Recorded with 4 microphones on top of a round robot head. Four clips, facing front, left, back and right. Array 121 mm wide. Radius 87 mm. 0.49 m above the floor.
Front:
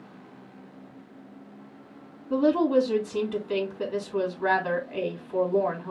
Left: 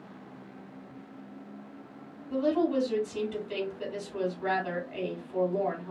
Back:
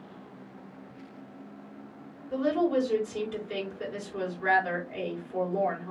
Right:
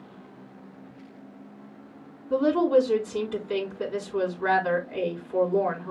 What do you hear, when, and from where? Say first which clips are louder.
2.3 s a woman speaking: right 6 dB, front 4 dB; 25° right, 4.5 m